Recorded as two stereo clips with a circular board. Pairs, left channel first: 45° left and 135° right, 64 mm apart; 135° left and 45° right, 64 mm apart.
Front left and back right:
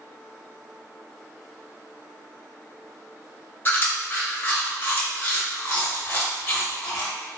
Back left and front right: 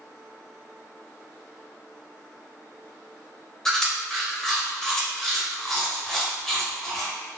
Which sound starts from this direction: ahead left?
Chewing, at 3.6 s.